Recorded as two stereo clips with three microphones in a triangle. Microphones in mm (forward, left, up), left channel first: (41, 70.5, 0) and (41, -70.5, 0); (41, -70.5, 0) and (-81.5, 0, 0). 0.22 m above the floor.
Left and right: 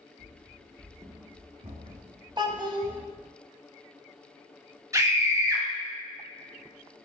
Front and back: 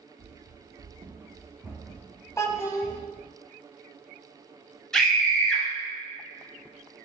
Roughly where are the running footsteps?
Behind left.